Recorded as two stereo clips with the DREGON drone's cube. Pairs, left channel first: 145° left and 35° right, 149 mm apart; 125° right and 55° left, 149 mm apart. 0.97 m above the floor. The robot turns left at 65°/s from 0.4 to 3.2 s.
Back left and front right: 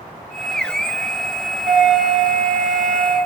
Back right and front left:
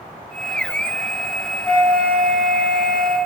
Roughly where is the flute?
Ahead right.